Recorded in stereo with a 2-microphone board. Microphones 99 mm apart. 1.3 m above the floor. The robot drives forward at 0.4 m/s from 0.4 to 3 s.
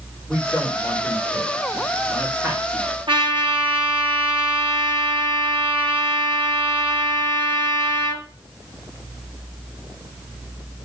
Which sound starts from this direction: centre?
A man speaking, at 0.3 s.